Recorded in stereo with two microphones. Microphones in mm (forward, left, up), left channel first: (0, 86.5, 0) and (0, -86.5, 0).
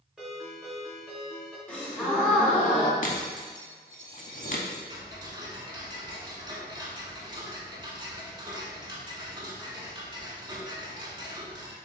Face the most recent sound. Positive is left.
turn(degrees=-25)  # may be behind; listen again after turning